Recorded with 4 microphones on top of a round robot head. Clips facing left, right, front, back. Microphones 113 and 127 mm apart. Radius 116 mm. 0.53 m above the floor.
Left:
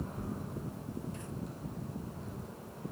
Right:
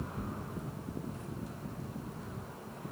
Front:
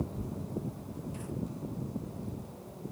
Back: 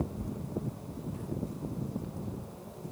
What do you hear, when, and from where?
0.1 s tearing paper: 5° right, 3 m